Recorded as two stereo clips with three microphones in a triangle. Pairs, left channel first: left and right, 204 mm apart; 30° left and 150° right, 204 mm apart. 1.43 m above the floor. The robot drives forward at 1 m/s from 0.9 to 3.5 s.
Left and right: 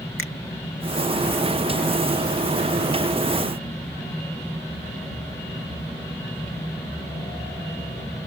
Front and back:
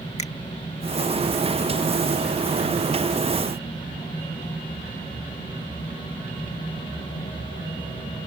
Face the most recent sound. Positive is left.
turn(degrees=140)